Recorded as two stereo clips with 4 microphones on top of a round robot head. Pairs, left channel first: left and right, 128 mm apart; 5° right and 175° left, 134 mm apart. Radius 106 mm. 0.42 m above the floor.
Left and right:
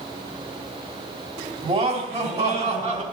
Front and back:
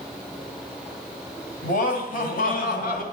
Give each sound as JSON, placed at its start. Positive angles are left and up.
{"t": 1.6, "sound": "laughter", "azimuth_deg": -30, "distance_m": 2.5}